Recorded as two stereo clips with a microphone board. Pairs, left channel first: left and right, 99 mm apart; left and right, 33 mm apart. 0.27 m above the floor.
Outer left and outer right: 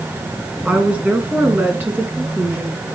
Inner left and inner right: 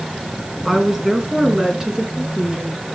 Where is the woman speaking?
15° right (ahead or behind), 3.5 m; by 2.8 s 25° right (ahead or behind), 5 m.